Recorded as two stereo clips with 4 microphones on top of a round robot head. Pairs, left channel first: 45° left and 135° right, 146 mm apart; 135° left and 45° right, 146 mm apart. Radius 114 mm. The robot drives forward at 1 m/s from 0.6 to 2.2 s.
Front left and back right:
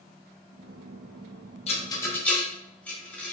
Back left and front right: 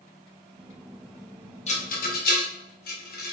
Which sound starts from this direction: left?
A rattle, at 1.7 s.